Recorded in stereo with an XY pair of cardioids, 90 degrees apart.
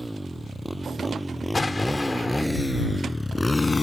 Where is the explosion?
20° left.